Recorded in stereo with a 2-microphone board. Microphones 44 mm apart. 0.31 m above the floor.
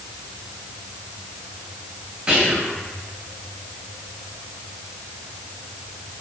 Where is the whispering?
20° right (ahead or behind), 1.3 m.